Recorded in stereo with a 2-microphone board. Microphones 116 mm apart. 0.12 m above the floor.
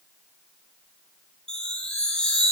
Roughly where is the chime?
Centre.